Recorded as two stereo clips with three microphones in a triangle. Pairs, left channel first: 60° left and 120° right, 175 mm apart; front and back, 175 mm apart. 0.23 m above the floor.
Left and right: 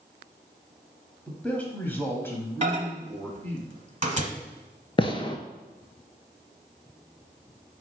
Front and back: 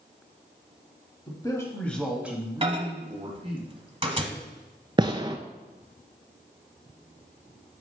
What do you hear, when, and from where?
1.3 s a man speaking: 15° right, 1.1 m; by 3.6 s 135° left, 1.6 m
2.6 s a microwave: 145° right, 1.1 m
5.0 s a gunshot: 115° left, 0.6 m